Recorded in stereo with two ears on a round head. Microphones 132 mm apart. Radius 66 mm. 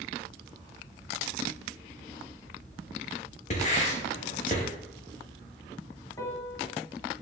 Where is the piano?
20° left (ahead or behind), 0.6 m.